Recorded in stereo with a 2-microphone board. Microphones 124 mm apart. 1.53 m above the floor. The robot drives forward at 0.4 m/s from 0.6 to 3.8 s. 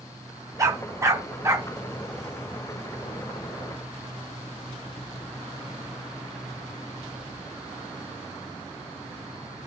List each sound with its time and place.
0.6 s a dog barking: 25° right (ahead or behind), 0.9 m